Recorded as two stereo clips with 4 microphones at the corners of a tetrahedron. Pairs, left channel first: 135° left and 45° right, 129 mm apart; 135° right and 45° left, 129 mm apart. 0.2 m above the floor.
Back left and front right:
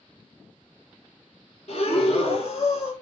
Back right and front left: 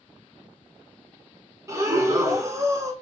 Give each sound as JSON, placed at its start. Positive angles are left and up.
{"t": 1.7, "sound": "breathing", "azimuth_deg": 110, "distance_m": 0.8}